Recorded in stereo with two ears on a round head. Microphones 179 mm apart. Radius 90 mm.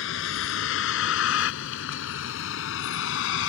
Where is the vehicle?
70° left (ahead or behind).